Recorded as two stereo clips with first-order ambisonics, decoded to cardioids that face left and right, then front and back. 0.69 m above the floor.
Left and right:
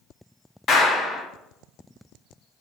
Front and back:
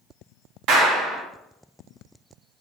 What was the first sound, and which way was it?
A clap, 150° left.